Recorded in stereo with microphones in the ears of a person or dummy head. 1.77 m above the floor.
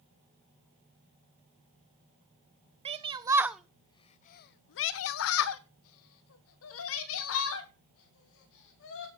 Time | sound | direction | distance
2.9 | a shout | 30° right (ahead or behind) | 0.8 m